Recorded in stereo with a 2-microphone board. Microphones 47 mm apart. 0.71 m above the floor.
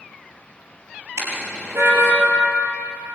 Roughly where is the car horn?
Right.